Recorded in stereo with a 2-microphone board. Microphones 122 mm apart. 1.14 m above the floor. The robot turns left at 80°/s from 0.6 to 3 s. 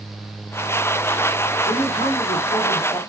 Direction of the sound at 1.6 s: 150° left.